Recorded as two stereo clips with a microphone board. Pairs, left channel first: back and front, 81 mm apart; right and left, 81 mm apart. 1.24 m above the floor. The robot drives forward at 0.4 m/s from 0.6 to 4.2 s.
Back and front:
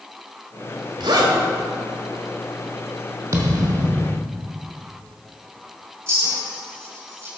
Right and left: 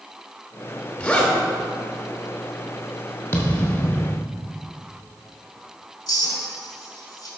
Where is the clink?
60° right, 3.5 m.